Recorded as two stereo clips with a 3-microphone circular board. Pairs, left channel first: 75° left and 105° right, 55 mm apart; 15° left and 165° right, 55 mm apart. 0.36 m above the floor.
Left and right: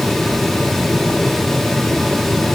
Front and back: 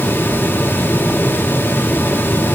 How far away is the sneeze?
I don't hear a sneeze.